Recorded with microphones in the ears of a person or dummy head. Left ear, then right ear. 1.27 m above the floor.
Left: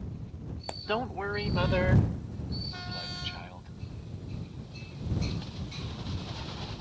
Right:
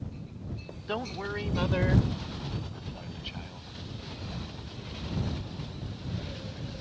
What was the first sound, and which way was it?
A man speaking, 15° left (ahead or behind).